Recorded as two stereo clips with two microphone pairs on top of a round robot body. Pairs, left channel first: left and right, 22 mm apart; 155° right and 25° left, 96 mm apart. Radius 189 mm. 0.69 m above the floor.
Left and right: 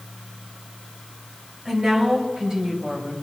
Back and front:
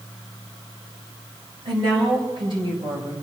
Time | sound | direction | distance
1.6 | a woman speaking | 10° right | 7 m